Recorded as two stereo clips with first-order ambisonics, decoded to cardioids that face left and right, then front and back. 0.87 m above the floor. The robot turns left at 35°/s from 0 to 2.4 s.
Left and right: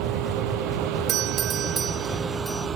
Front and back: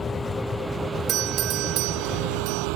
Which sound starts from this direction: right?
A vehicle, at 0.0 s.